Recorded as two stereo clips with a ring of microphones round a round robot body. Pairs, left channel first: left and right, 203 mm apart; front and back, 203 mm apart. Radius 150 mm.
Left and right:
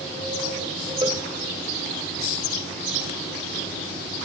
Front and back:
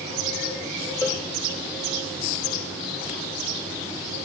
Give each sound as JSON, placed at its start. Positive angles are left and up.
{"t": 1.0, "sound": "a cowbell", "azimuth_deg": -55, "distance_m": 1.5}